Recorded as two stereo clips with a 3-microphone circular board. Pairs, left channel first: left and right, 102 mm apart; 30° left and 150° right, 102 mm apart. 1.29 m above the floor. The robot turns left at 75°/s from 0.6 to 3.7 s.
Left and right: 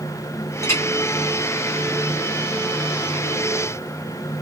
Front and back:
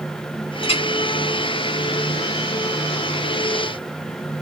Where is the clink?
30° left, 1.1 m; by 0.8 s 15° left, 1.1 m.